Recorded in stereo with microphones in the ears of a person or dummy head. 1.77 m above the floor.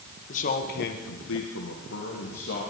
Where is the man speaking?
45° left (ahead or behind), 2 m; by 2.7 s 40° left (ahead or behind), 3 m.